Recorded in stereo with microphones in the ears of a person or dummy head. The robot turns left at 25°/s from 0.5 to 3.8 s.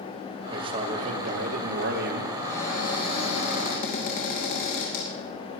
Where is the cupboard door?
170° left, 2.5 m; by 5.1 s 135° left, 2.5 m.